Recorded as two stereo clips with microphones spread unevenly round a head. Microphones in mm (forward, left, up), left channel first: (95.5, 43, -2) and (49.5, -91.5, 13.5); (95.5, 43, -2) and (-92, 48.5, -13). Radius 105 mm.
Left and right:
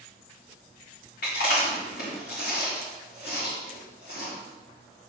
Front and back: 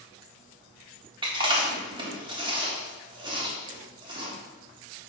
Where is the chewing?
115° left, 3.5 m.